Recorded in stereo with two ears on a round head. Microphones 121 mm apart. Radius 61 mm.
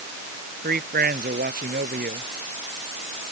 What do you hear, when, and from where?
0.6 s a man speaking: 80° right